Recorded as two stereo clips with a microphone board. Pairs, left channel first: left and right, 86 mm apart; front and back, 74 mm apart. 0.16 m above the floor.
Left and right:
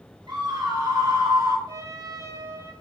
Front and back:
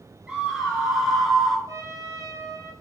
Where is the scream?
100° right, 2.5 m; by 1.6 s 85° right, 2.5 m.